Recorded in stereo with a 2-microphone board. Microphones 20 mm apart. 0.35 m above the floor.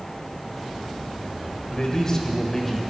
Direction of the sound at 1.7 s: 40° left (ahead or behind).